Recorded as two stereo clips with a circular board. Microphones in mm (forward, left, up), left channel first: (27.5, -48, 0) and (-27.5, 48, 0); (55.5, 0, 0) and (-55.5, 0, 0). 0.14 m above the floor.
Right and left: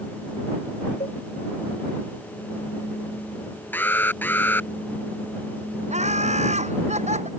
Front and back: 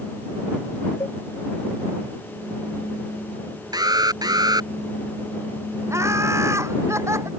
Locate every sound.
1.0 s a cowbell: 55° right
3.7 s an alarm: 130° right
5.9 s laughter: 115° left